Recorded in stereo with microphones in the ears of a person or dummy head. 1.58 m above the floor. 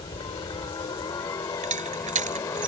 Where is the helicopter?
25° left (ahead or behind); by 2.7 s 15° left (ahead or behind).